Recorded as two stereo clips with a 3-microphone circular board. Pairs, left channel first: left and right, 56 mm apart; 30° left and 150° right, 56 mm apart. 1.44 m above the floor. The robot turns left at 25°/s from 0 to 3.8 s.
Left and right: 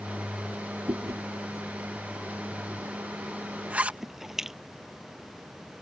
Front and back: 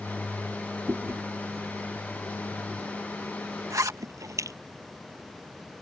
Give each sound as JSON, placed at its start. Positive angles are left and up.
{"t": 0.9, "sound": "chewing", "azimuth_deg": -100}
{"t": 3.7, "sound": "a zipper", "azimuth_deg": -150}